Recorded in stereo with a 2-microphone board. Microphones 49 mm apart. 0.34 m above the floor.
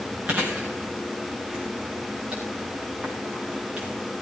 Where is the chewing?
20° right (ahead or behind), 6 m.